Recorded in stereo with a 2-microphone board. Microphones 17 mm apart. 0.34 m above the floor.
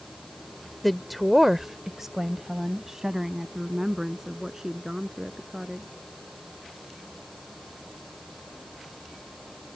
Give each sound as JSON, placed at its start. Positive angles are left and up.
{"t": 0.8, "sound": "a woman speaking", "side_deg": 10}